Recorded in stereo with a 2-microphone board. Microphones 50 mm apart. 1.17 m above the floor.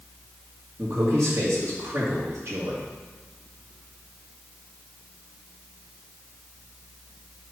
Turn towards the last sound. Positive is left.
turn(degrees=-65)  # may be behind; listen again after turning